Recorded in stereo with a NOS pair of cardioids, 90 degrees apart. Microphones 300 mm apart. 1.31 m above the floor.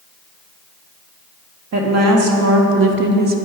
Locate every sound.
1.7 s a woman speaking: 60° right, 1.6 m; by 3.4 s 35° right, 0.8 m